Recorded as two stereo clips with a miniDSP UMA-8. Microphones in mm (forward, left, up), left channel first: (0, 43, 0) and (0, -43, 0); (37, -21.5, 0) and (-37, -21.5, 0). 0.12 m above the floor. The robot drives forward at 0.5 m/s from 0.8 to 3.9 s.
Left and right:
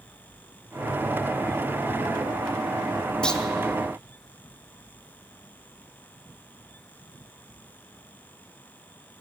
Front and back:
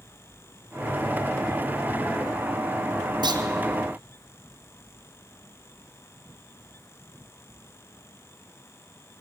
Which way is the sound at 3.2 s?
170° left.